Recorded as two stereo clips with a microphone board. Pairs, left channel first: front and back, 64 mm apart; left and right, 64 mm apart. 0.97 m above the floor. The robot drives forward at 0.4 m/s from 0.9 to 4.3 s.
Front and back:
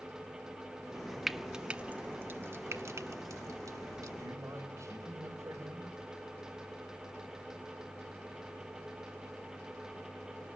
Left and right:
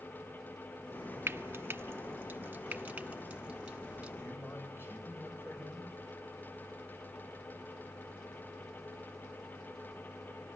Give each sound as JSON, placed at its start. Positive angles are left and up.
{"t": 1.3, "sound": "frying", "azimuth_deg": -90, "distance_m": 0.6}
{"t": 4.2, "sound": "a man speaking", "azimuth_deg": 140, "distance_m": 4.5}